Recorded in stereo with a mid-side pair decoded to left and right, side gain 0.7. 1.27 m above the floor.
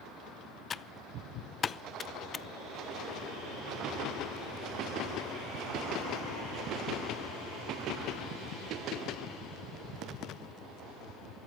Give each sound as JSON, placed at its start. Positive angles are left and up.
{"t": 0.7, "sound": "typing on a keyboard", "azimuth_deg": 30, "distance_m": 0.6}